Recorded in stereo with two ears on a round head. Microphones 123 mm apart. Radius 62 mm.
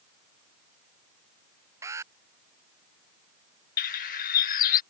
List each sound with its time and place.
1.8 s an alarm: 20° right (ahead or behind)
3.8 s a bird: 65° left (ahead or behind)